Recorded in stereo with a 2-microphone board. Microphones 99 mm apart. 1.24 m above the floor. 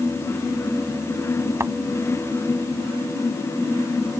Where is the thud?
25° right (ahead or behind).